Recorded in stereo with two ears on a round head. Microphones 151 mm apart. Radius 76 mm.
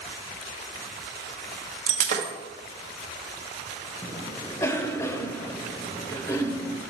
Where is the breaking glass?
45° right (ahead or behind), 1.2 m.